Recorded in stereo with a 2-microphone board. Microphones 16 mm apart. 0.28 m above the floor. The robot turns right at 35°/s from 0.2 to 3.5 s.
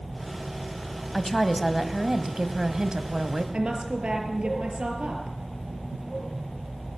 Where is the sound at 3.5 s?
70° right (ahead or behind), 5 m.